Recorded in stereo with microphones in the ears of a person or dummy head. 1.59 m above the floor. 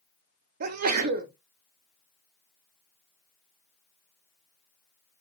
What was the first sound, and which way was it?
A sneeze, 50° right (ahead or behind).